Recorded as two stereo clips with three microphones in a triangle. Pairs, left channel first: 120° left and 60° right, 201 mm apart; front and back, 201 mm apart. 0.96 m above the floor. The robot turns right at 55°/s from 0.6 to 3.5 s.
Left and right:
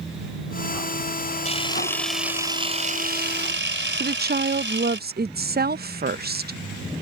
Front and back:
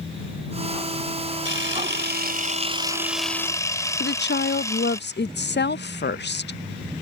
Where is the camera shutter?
175° left; by 5.0 s 75° right.